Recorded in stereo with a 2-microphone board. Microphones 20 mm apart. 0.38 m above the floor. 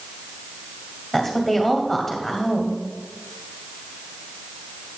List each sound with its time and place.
1.1 s a woman speaking: 10° left (ahead or behind), 2 m